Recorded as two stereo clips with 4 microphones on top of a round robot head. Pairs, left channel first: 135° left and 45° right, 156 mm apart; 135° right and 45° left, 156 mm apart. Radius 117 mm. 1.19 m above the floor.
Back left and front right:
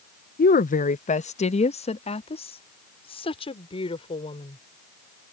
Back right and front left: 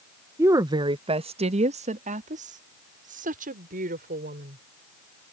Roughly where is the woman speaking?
Behind left.